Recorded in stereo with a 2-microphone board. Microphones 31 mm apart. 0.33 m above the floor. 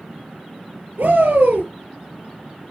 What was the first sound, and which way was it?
A shout, 80° right.